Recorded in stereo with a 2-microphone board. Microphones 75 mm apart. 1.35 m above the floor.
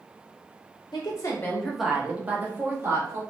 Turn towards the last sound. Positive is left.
turn(degrees=-35)  # may be behind; listen again after turning